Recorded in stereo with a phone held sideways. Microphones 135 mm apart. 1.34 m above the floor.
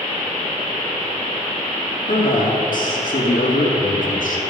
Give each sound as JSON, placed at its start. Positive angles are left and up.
{"t": 2.1, "sound": "a man speaking", "side_deg": 80, "distance_m": 2.0}